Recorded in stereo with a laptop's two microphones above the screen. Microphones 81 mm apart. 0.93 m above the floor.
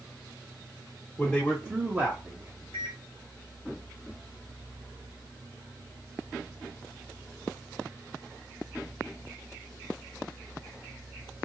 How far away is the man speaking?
About 0.8 m.